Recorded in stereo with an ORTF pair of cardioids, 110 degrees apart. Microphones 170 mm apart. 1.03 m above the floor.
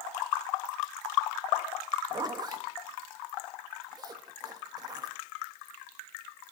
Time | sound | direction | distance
2.1 | a zipper | 25° right | 0.9 m